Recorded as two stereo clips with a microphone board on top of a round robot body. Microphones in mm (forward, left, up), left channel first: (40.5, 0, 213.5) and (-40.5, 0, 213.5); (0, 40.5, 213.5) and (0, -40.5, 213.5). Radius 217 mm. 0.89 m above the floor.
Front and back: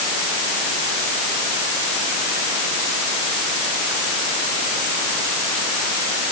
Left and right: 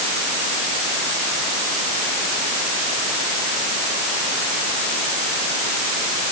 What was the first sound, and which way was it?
Only background noise.